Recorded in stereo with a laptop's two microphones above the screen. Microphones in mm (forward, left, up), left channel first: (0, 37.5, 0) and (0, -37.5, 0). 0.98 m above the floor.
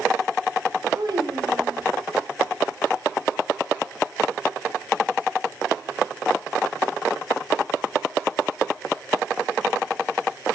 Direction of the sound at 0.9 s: 65° right (ahead or behind).